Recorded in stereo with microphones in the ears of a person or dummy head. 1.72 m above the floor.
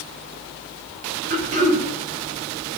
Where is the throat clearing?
40° right (ahead or behind), 5 m.